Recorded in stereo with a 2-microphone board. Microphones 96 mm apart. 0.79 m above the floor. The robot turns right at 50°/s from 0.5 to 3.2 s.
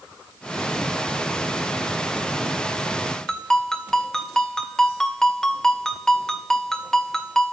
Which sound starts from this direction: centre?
A ringtone, at 3.3 s.